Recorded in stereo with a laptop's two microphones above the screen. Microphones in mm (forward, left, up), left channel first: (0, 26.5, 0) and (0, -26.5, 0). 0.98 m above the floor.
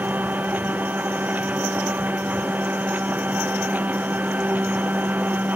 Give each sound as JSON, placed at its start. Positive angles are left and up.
{"t": 0.0, "sound": "a machine running", "side_deg": -35}